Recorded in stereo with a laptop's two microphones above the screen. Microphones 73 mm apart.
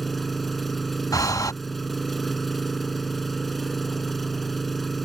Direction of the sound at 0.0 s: Centre (ahead or behind).